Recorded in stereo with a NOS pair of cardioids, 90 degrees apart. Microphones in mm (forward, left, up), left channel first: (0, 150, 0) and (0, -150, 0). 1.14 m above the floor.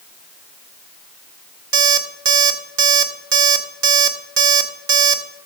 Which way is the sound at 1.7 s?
45° right.